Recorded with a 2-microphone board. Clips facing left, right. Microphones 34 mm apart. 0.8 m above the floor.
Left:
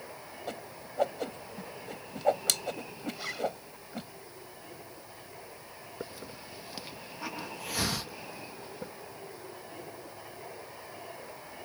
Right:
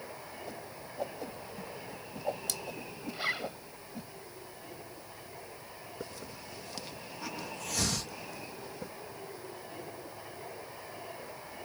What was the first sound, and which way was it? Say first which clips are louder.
A whoosh: left 3 dB; 70° left (ahead or behind).